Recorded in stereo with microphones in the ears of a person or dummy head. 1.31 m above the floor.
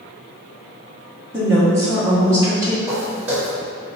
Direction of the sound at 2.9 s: 10° right (ahead or behind).